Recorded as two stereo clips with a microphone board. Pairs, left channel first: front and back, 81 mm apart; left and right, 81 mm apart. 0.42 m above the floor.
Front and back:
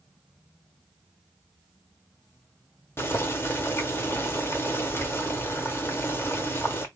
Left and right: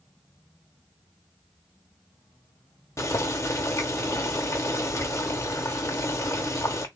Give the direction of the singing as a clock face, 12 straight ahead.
I don't hear singing.